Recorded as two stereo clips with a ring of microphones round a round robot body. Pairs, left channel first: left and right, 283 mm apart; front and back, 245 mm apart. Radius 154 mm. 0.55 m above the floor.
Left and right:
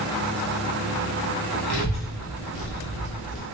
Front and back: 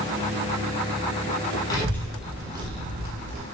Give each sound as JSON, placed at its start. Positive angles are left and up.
{"t": 1.7, "sound": "a child speaking", "azimuth_deg": 75, "distance_m": 1.6}